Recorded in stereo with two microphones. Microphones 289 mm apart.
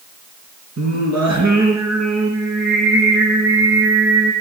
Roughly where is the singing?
Right.